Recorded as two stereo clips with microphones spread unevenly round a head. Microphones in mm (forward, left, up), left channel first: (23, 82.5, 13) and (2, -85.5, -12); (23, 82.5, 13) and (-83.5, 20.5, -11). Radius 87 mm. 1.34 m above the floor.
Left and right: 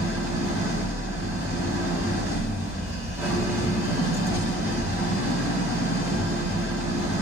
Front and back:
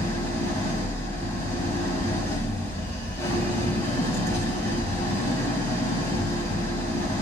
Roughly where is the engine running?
Ahead.